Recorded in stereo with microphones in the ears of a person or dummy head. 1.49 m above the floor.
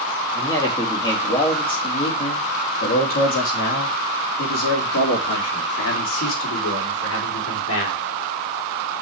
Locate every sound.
0.3 s a man speaking: 20° left (ahead or behind), 3 m; by 8.0 s 90° left, 4 m